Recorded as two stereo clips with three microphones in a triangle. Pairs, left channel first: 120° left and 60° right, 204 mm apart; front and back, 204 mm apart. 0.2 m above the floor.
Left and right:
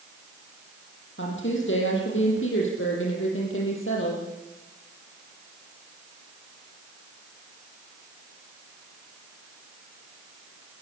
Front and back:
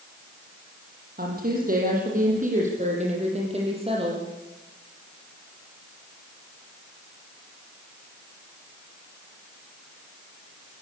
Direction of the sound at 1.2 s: 140° left.